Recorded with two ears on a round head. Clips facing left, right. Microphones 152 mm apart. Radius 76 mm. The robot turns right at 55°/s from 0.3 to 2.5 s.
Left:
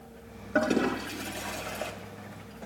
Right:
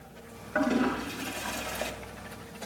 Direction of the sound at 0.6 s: 45° left (ahead or behind).